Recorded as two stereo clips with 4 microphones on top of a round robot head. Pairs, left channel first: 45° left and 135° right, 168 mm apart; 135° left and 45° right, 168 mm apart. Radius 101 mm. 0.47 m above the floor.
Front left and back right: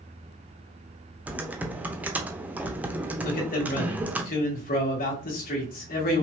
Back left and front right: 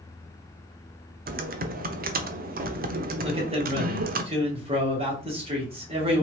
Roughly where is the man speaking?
Ahead.